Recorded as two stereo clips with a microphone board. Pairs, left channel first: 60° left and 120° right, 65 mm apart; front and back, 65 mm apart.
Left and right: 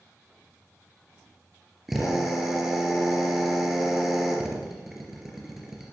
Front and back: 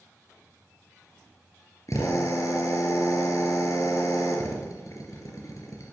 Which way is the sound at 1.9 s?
35° right.